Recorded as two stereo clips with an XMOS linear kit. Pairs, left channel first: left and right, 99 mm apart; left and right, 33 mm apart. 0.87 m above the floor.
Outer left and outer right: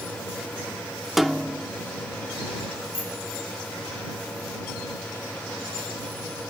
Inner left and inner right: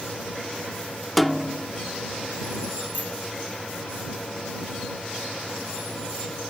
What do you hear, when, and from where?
1.2 s a snare drum: centre (ahead or behind)
2.9 s a bicycle bell: 70° left (ahead or behind)